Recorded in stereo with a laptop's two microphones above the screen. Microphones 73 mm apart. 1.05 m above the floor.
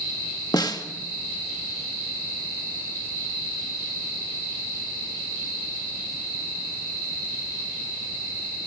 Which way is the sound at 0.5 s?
60° left (ahead or behind).